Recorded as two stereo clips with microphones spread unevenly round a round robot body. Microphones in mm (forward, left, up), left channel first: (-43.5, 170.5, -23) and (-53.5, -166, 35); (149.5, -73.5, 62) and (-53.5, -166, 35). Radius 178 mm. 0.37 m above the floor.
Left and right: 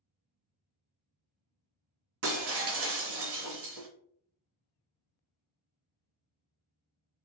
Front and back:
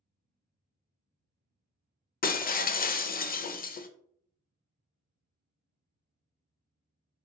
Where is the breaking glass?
35° right, 0.5 m.